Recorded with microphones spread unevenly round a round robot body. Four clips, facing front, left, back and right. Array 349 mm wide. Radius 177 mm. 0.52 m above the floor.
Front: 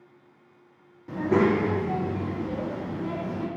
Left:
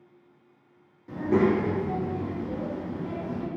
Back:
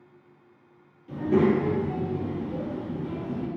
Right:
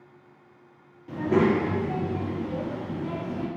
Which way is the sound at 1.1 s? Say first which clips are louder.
Right 1 dB, even; 25° right.